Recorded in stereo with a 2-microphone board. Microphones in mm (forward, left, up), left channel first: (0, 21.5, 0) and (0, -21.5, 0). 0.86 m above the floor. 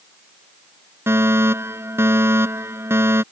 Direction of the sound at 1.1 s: 85° right.